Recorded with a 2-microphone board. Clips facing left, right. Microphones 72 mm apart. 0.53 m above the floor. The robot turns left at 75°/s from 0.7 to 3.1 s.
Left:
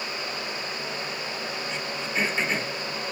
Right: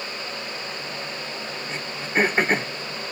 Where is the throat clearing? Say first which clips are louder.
Right 6 dB; 35° right (ahead or behind), 1.7 m; by 2.7 s 45° right (ahead or behind), 1.7 m.